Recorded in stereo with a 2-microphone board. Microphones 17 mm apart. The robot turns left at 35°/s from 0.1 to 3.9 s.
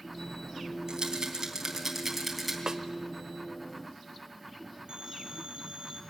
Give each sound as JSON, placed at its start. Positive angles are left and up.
{"t": 0.9, "sound": "a rattle", "side_deg": -55, "distance_m": 3.0}
{"t": 2.7, "sound": "a snare drum", "side_deg": -40, "distance_m": 0.8}
{"t": 4.9, "sound": "a phone ringing", "side_deg": -75, "distance_m": 4.0}